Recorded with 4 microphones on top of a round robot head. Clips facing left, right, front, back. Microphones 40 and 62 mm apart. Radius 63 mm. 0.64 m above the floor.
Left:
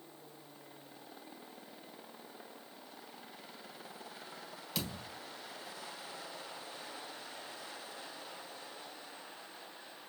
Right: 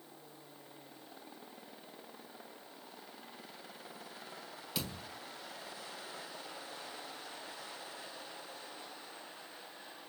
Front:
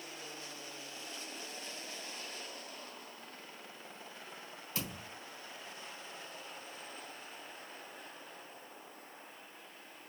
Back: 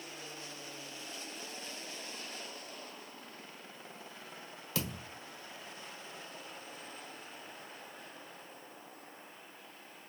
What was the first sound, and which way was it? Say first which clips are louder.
A thud: left 1 dB, back 4 dB; 175° right.